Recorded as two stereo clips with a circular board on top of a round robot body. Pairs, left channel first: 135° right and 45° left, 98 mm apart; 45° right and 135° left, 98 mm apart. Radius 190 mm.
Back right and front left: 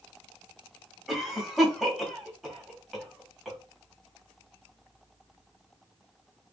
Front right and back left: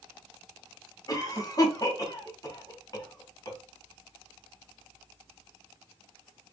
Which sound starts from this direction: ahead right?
A cough, at 1.1 s.